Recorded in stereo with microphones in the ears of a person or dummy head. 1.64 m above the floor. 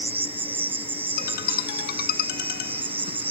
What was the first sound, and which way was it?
An insect, 5° right (ahead or behind).